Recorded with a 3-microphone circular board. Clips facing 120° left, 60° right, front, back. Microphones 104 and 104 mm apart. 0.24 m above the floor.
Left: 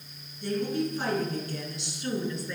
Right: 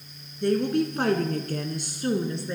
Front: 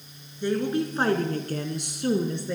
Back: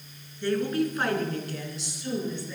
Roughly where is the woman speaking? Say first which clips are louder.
Right 6 dB, front 1 dB; right.